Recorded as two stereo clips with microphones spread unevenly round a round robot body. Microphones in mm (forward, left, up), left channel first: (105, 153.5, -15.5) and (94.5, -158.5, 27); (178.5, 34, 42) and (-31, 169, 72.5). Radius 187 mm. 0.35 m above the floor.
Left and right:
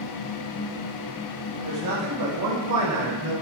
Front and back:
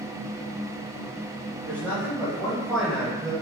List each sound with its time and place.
1.6 s a man speaking: 125° right, 2 m; by 3.3 s 110° right, 1.2 m